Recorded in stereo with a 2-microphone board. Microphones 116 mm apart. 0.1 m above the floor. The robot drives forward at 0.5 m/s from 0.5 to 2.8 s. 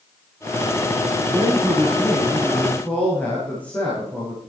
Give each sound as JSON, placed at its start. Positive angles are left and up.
{"t": 1.2, "sound": "a man speaking", "side_deg": 10, "distance_m": 8.0}